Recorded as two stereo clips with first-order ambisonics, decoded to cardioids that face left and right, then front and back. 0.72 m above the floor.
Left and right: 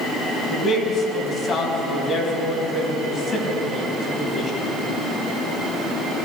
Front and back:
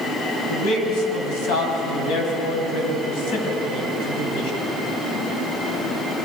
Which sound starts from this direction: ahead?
A man speaking, at 0.5 s.